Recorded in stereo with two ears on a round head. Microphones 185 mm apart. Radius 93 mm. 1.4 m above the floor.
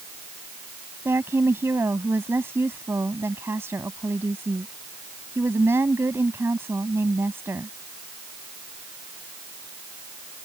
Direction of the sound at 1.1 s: 10° right (ahead or behind).